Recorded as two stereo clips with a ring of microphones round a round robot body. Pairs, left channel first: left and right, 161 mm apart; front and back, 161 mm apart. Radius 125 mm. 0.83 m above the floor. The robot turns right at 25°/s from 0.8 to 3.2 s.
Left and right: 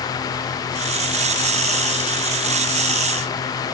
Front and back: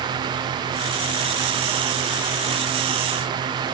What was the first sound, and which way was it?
Only background noise.